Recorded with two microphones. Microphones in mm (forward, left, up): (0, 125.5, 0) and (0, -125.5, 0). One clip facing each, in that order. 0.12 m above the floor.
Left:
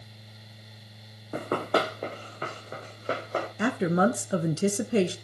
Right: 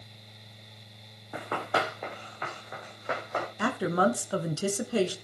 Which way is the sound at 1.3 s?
45° left (ahead or behind).